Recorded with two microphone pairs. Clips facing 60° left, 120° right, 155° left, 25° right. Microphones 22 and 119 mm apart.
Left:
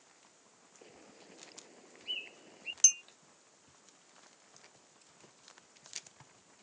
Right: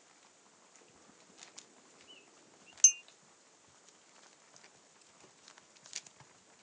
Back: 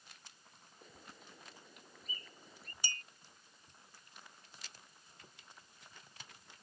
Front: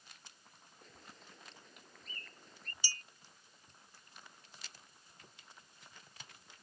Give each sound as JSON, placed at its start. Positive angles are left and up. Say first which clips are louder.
{"t": 0.8, "sound": "a bird", "louder": "left 9 dB, back 1 dB", "azimuth_deg": 70}
{"t": 2.8, "sound": "a clink", "louder": "even, back 4 dB", "azimuth_deg": 140}